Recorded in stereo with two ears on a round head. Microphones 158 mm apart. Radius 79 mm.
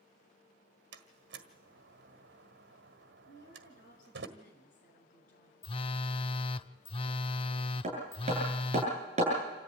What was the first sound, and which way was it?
A door slam, 70° right (ahead or behind).